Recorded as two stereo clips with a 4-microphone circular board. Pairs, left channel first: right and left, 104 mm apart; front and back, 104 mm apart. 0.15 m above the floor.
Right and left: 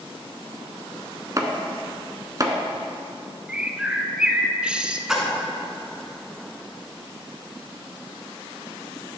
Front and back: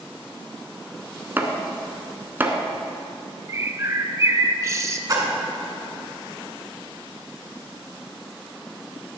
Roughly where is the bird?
Behind.